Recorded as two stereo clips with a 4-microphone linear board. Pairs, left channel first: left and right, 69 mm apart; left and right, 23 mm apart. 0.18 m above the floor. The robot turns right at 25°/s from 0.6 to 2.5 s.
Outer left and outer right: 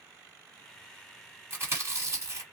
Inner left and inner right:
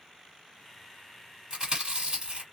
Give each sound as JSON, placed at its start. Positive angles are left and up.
{"t": 1.5, "sound": "chewing", "side_deg": -35, "distance_m": 1.8}